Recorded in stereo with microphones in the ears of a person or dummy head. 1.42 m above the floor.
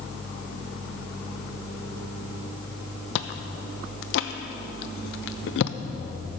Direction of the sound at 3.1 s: 65° left (ahead or behind).